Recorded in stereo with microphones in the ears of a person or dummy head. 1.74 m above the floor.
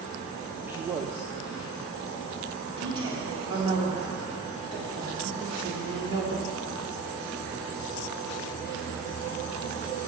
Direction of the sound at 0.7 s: 15° right (ahead or behind).